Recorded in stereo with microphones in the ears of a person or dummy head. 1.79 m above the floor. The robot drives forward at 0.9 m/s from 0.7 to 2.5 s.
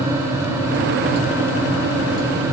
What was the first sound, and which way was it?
Only background noise.